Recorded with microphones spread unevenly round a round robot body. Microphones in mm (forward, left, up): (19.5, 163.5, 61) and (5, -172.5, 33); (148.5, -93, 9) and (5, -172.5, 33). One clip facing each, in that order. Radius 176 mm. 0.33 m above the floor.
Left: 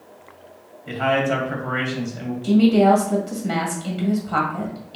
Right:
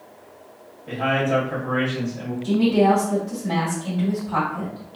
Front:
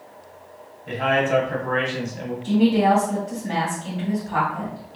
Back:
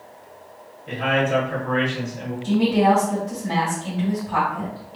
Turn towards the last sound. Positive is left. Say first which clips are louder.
# left 3 dB, even
turn(degrees=125)